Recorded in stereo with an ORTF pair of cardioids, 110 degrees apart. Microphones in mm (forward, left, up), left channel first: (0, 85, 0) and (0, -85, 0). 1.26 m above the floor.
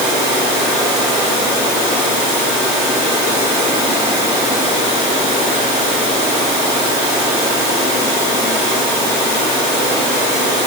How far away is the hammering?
No hammering in this recording.